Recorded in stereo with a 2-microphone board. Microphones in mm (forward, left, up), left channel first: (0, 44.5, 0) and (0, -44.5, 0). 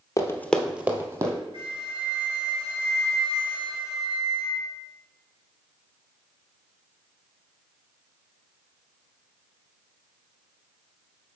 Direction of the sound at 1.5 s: 85° right.